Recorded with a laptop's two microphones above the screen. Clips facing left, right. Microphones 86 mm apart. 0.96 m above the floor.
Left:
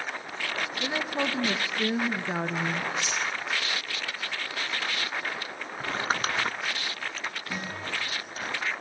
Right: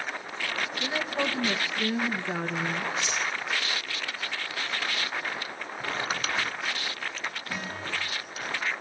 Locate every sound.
0.8 s a woman speaking: 10° left (ahead or behind), 1.0 m
3.0 s a dropped coin: 30° right (ahead or behind), 1.3 m
5.8 s crumpling: 40° left (ahead or behind), 0.6 m
7.5 s a guitar: 20° left (ahead or behind), 9 m